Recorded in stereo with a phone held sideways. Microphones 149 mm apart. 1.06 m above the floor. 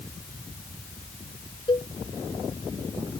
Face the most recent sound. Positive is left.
turn(degrees=35)  # may be behind; listen again after turning